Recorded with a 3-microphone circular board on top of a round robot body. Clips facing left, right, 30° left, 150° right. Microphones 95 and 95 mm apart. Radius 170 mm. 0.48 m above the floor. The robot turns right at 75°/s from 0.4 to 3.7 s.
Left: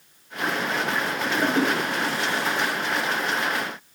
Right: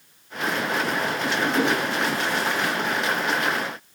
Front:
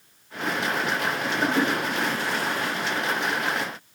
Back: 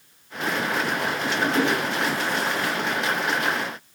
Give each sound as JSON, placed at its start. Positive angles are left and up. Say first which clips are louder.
{"t": 1.4, "sound": "a toilet flushing", "louder": "even, back 1 dB", "azimuth_deg": 75, "distance_m": 4.0}